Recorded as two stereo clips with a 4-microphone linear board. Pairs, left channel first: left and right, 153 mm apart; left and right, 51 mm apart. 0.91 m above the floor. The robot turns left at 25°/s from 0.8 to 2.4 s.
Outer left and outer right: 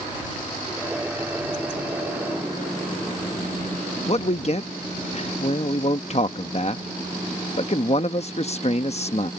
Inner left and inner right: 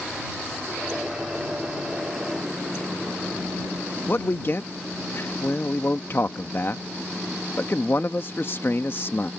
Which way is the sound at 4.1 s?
45° left (ahead or behind).